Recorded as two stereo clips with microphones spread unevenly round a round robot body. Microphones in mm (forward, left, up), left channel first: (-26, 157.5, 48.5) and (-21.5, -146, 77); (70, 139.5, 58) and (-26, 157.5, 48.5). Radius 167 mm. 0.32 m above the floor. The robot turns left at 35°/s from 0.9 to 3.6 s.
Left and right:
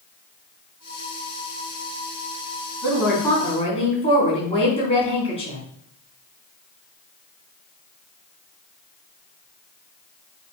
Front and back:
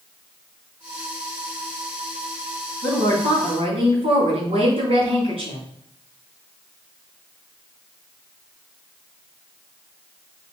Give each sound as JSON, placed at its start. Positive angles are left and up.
{"t": 2.8, "sound": "a woman speaking", "azimuth_deg": -170, "distance_m": 3.5}